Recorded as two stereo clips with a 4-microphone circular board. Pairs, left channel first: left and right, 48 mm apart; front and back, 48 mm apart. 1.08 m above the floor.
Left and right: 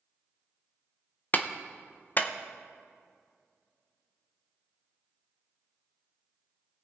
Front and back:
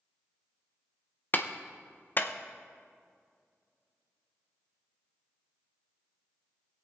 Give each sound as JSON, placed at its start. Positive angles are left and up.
{"t": 1.3, "sound": "a clap", "azimuth_deg": 45, "distance_m": 0.6}